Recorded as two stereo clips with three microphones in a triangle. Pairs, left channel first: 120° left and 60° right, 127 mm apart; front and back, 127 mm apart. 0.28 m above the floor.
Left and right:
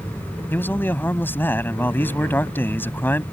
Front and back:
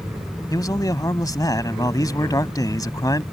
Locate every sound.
0.5 s a man speaking: 50° left